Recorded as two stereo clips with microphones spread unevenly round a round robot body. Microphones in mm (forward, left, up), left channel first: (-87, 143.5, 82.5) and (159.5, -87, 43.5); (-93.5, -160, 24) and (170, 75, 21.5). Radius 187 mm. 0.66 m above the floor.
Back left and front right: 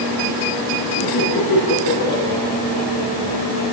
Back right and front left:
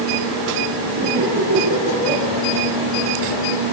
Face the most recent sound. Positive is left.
turn(degrees=120)